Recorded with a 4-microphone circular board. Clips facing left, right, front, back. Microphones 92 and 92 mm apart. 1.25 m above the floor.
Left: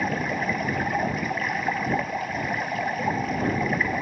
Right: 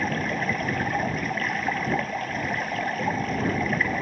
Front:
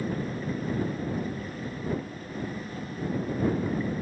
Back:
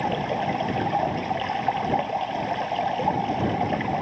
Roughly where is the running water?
Behind.